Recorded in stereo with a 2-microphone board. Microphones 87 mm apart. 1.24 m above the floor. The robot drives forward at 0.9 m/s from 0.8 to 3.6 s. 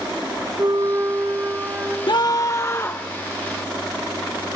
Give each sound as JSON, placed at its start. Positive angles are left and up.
{"t": 0.6, "sound": "a flute", "side_deg": -45, "distance_m": 0.7}
{"t": 2.1, "sound": "a scream", "side_deg": 60, "distance_m": 0.7}